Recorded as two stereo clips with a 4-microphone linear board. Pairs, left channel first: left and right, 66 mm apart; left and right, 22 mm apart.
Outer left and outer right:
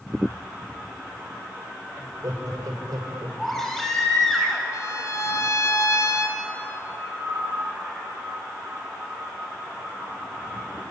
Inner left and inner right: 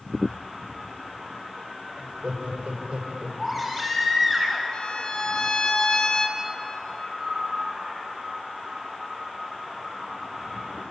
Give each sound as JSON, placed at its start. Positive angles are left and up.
{"t": 2.0, "sound": "laughter", "side_deg": -70, "distance_m": 4.0}
{"t": 3.4, "sound": "a baby crying", "side_deg": 5, "distance_m": 4.5}
{"t": 4.7, "sound": "a violin", "side_deg": 55, "distance_m": 1.8}